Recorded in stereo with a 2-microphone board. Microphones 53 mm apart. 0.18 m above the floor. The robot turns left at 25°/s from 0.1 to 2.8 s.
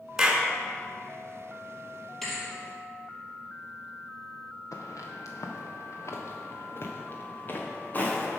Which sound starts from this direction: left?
Footsteps, at 4.7 s.